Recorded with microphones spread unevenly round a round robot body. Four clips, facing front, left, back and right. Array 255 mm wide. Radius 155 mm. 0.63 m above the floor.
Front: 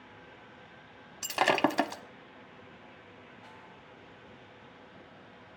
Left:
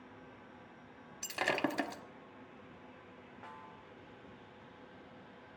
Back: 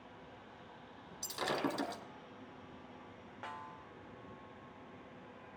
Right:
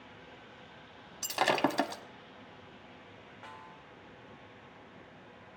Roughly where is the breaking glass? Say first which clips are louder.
Right 6 dB, front 10 dB; ahead right.